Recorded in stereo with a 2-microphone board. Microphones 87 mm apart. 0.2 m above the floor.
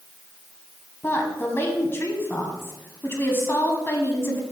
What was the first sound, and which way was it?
A woman speaking, 30° left (ahead or behind).